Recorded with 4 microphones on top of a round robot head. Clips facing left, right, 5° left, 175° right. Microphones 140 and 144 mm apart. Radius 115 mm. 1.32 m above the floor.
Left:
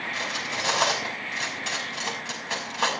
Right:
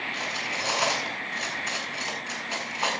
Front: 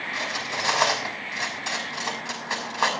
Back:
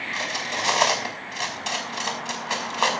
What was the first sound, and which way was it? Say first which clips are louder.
Cutlery clinking: left 2 dB, back 2 dB; 115° left.